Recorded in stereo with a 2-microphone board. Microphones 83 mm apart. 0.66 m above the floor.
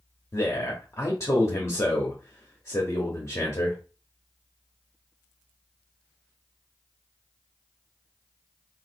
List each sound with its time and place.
0.3 s a man speaking: 35° left (ahead or behind), 1.1 m